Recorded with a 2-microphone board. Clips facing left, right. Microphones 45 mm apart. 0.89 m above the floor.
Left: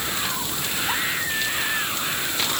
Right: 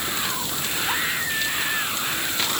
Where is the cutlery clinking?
No cutlery clinking in this recording.